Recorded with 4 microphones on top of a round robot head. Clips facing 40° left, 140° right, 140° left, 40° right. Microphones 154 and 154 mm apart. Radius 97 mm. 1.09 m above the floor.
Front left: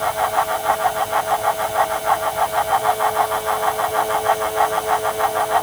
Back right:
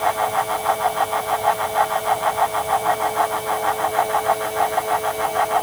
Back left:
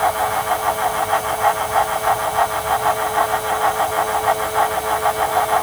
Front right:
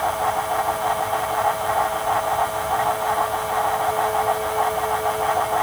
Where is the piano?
No piano in this recording.